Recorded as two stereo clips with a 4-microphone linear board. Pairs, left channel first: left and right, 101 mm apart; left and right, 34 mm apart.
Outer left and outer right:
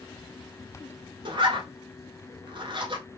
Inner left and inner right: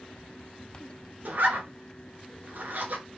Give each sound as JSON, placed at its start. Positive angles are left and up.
{"t": 1.2, "sound": "a zipper", "side_deg": -55, "distance_m": 0.9}